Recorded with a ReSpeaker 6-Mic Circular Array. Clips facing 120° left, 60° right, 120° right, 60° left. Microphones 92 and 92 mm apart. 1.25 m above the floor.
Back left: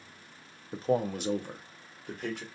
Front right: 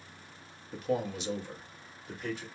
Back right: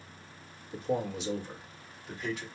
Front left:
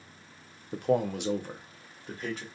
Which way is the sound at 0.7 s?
60° left.